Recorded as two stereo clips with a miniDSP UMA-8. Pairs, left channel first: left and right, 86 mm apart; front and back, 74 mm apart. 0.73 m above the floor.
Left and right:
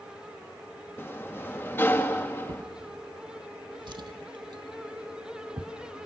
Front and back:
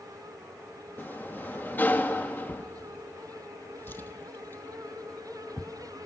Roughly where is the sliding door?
Ahead left.